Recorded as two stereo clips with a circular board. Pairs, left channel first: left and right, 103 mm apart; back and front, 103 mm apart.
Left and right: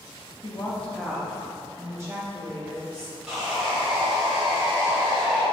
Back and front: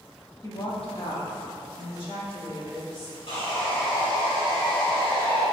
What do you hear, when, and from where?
0.4 s a woman speaking: 125° left, 0.5 m; by 3.2 s 150° right, 2.5 m
3.3 s sawing: 170° right, 1.5 m